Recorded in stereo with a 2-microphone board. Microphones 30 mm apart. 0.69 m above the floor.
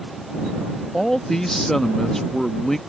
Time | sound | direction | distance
0.9 | a man speaking | 15° left (ahead or behind) | ?